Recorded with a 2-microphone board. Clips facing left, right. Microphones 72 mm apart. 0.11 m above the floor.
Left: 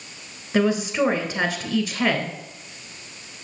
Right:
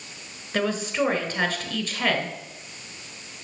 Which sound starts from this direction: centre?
A woman speaking, at 0.5 s.